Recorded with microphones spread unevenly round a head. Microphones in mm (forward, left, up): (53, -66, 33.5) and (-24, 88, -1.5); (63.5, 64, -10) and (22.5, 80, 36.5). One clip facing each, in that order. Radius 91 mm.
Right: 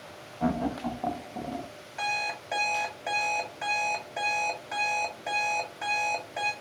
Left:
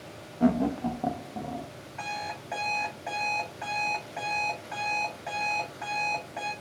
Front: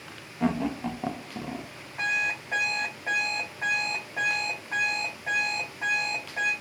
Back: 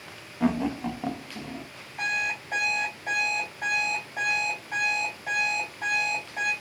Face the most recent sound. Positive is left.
turn(degrees=-115)